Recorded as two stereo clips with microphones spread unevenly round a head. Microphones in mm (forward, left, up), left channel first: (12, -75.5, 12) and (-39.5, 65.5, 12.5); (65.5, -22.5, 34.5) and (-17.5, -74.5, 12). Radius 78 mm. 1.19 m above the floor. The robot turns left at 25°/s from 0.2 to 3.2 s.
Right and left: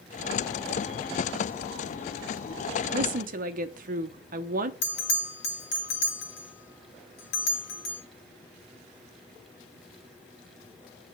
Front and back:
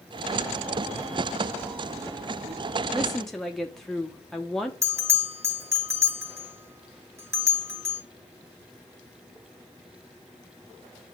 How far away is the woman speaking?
About 0.9 m.